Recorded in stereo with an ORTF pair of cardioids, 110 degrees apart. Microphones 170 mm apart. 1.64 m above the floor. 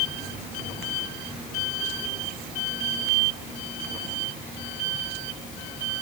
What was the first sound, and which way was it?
Only background noise.